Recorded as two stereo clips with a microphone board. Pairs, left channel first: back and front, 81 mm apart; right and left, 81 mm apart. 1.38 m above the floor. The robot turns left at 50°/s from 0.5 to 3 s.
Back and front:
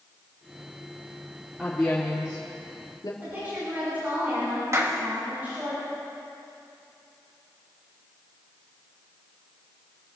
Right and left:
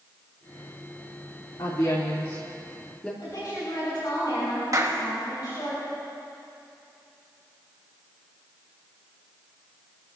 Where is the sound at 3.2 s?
65° right, 6.5 m.